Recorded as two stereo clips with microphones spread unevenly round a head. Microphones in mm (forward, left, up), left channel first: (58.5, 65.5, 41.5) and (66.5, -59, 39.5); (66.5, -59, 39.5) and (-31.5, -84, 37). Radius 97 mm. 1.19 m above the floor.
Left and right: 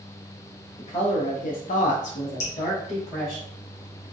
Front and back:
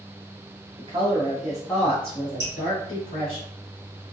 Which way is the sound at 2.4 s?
130° left.